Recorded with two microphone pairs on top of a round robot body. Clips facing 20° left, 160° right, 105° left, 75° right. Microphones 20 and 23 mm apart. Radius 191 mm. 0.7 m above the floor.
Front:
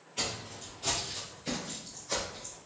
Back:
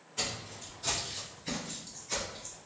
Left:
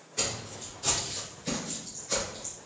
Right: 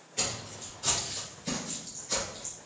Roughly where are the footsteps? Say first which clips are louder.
Front 1 dB, left 1 dB; ahead.